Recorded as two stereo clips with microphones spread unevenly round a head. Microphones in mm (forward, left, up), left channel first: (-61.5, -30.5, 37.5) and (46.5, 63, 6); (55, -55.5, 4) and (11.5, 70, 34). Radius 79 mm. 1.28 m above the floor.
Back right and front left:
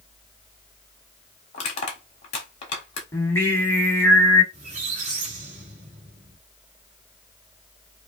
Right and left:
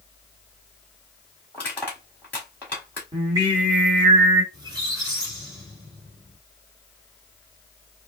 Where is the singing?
160° left, 1.3 m.